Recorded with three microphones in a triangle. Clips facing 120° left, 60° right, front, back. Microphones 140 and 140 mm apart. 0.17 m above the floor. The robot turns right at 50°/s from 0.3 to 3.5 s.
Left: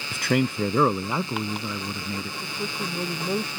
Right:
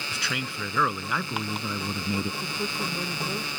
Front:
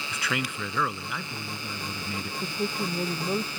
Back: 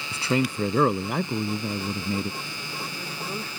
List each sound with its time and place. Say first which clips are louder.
0.1 s a man speaking: left 13 dB, back 8 dB; 130° left; by 2.3 s 130° right
2.4 s a woman speaking: even, front 7 dB; 20° left; by 3.6 s 75° left